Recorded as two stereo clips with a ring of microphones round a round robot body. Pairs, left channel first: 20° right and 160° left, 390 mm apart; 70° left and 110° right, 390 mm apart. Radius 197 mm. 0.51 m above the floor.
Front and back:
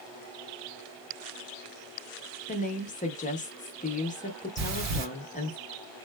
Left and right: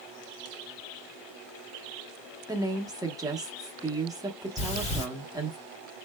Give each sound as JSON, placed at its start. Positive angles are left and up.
{"t": 2.5, "sound": "a woman speaking", "azimuth_deg": -50, "distance_m": 0.6}
{"t": 4.6, "sound": "breathing", "azimuth_deg": 140, "distance_m": 1.9}